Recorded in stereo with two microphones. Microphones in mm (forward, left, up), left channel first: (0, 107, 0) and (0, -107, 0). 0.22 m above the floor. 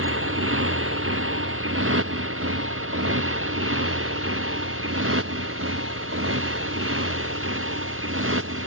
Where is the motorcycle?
80° right; by 8.7 s 75° right (ahead or behind).